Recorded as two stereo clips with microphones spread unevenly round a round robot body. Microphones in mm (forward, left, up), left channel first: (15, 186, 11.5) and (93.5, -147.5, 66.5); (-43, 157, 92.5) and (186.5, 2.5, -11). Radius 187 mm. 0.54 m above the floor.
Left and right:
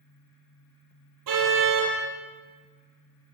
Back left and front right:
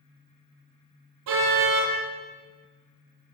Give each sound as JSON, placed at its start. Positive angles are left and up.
{"t": 1.3, "sound": "a car horn", "azimuth_deg": -45, "distance_m": 8.5}